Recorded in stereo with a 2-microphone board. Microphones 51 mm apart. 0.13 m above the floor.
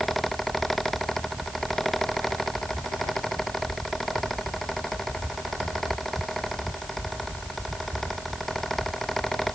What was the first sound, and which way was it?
Only background noise.